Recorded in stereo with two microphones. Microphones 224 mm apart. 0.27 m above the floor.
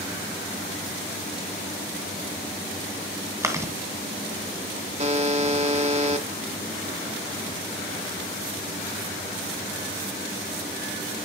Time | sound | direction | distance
3.4 | chewing | 15° right (ahead or behind) | 2 m
5.0 | a buzzer | 30° right (ahead or behind) | 1.1 m